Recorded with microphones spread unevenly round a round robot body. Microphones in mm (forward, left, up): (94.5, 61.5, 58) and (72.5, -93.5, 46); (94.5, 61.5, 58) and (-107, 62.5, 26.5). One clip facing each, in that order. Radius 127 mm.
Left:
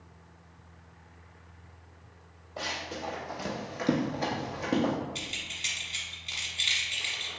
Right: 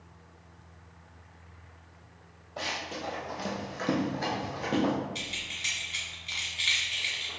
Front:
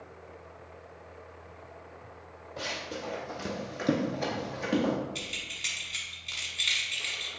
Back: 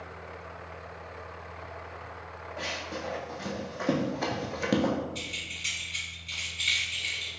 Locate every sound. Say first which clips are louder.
2.6 s running footsteps: even, even; 5° right, 1.4 m; by 4.9 s 150° left, 0.8 m
5.2 s keys jangling: even, back 1 dB; 20° left, 1.3 m